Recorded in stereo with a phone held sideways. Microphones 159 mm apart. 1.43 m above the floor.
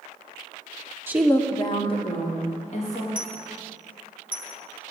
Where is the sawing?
I don't hear sawing.